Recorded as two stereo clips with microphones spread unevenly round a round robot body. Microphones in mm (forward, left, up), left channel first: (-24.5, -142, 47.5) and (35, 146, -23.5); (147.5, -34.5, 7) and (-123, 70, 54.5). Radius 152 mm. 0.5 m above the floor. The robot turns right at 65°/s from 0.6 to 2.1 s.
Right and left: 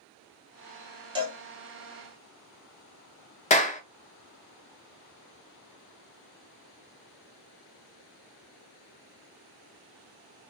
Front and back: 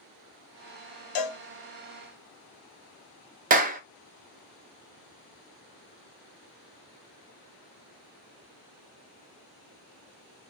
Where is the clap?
165° right, 0.6 m.